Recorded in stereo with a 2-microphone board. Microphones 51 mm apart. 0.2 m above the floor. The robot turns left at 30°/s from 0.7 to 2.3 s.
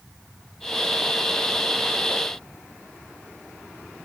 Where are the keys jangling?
I don't hear keys jangling.